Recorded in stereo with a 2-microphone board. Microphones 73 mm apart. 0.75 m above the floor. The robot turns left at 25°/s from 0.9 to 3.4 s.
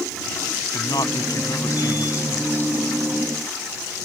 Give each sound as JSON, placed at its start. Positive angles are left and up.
{"t": 0.7, "sound": "a man speaking", "azimuth_deg": 75}